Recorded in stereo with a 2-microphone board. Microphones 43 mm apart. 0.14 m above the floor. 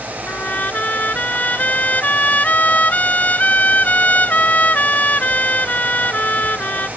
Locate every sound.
0.3 s a trumpet: 40° left (ahead or behind)